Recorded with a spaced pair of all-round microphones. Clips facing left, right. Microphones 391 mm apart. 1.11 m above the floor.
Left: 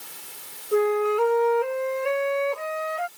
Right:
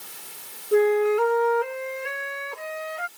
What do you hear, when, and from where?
0.7 s a flute: 30° right (ahead or behind)